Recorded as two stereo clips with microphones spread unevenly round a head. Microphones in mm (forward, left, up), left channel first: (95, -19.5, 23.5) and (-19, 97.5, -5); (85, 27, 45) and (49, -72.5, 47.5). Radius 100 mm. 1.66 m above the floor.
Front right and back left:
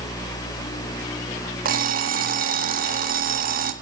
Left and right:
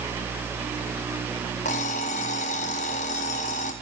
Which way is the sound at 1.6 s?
100° left.